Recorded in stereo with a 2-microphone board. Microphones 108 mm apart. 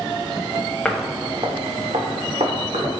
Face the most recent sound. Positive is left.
turn(degrees=-90)